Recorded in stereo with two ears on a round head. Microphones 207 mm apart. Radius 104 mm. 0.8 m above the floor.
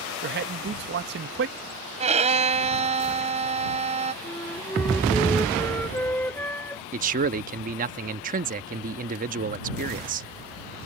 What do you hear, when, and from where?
0.2 s a man speaking: 45° right (ahead or behind)
2.0 s a violin: 30° right (ahead or behind)
4.2 s a flute: 10° left (ahead or behind)
6.9 s a man speaking: 35° right (ahead or behind)